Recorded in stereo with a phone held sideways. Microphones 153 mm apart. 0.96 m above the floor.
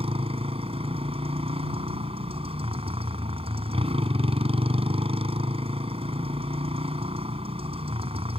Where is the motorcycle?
40° right (ahead or behind).